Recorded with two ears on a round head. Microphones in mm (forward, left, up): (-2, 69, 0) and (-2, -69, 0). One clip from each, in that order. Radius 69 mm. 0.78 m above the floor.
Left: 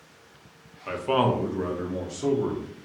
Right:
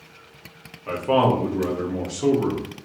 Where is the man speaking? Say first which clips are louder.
Right 4 dB; 40° left (ahead or behind), 0.7 m; by 2.7 s 35° right (ahead or behind), 0.8 m.